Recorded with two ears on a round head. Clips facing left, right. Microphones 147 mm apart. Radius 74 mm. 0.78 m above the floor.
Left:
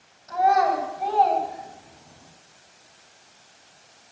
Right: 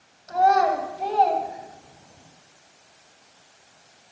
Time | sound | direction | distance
0.3 | a child speaking | 40° right (ahead or behind) | 2.5 m